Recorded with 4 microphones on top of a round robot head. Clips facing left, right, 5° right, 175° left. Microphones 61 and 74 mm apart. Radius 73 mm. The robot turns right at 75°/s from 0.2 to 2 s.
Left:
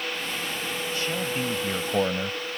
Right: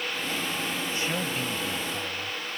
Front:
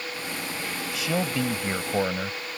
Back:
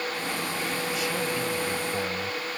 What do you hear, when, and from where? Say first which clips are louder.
0.9 s a man speaking: left 4 dB, front 6 dB; 20° right; by 2.4 s 60° left